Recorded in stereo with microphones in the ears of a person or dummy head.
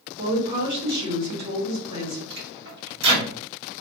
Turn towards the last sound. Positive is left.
turn(degrees=-55)  # may be behind; listen again after turning